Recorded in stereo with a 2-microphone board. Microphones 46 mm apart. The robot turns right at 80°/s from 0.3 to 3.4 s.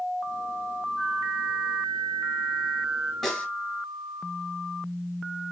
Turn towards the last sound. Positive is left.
turn(degrees=20)  # may be behind; listen again after turning